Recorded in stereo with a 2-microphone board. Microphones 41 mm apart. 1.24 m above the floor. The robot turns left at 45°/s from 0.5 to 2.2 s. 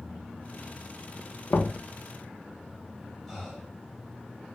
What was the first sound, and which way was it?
Knocking, 70° left (ahead or behind).